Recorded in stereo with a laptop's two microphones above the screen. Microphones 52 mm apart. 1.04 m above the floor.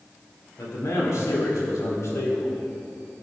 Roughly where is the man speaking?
Left.